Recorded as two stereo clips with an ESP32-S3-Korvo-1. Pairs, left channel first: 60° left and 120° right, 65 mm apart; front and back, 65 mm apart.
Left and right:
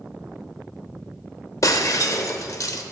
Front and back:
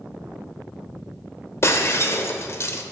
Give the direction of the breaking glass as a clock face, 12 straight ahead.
11 o'clock.